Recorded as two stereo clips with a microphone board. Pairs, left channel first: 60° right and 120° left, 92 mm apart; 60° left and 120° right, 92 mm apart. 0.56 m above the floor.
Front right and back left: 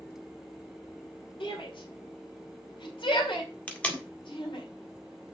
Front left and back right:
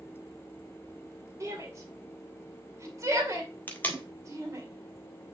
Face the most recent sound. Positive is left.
turn(degrees=5)